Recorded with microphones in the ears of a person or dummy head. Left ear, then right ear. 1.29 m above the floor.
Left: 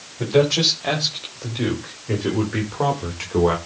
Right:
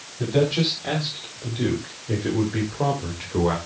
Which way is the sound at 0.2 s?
40° left (ahead or behind).